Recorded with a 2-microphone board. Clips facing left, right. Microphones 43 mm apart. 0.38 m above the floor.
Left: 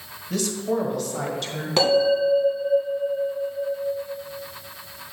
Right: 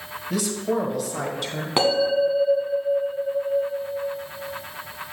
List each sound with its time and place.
0.3 s a man speaking: 10° right (ahead or behind), 1.3 m
1.8 s a bell: 20° right (ahead or behind), 1.8 m